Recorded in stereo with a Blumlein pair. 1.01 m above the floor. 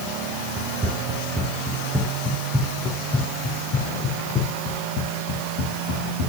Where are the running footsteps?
15° right, 3.5 m; by 6.3 s 50° left, 4 m.